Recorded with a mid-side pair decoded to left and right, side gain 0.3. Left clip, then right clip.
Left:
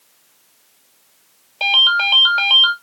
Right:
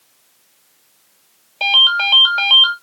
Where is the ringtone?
Straight ahead, 1.8 m.